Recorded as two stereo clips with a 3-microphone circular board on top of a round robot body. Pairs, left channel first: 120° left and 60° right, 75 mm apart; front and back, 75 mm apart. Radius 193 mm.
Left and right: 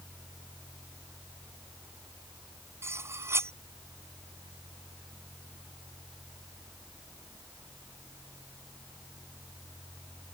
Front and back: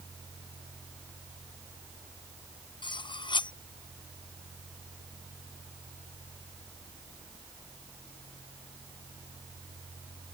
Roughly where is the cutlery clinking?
Ahead.